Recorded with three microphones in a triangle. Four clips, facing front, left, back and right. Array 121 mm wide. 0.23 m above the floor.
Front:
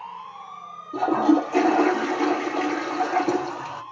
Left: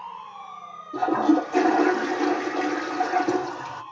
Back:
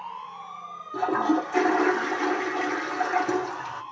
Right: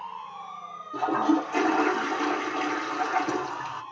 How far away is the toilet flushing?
About 1.9 m.